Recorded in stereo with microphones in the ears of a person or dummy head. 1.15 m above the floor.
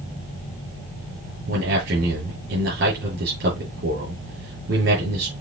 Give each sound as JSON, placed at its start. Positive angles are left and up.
{"t": 1.5, "sound": "a man speaking", "side_deg": -70, "distance_m": 7.0}